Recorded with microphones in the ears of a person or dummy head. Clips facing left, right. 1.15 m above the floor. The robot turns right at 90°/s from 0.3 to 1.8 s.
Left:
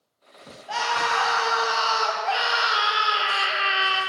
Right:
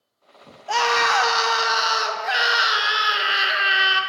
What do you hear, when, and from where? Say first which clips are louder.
0.7 s a scream: right 5 dB; 120° right, 0.9 m; by 4.0 s 20° right, 0.9 m